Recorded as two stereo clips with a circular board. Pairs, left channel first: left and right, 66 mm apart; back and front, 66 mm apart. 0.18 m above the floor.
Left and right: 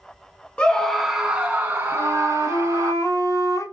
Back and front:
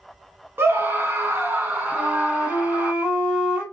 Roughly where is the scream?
Ahead left.